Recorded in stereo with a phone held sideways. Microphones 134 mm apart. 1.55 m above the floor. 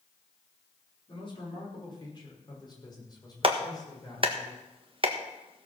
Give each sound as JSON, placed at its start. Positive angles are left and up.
{"t": 1.1, "sound": "a man speaking", "side_deg": 40, "distance_m": 4.5}
{"t": 3.4, "sound": "a clap", "side_deg": -40, "distance_m": 1.5}